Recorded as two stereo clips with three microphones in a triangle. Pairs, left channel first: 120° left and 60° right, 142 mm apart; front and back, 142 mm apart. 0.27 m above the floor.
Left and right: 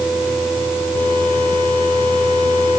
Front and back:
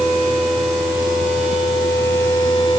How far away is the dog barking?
No dog barking in this recording.